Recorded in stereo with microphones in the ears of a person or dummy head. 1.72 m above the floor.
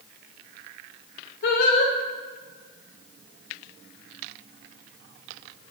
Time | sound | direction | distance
1.4 | singing | 70° left (ahead or behind) | 1.6 m